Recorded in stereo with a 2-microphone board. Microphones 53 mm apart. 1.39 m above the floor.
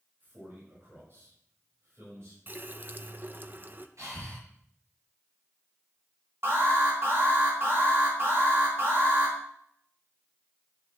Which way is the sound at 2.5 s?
40° right (ahead or behind).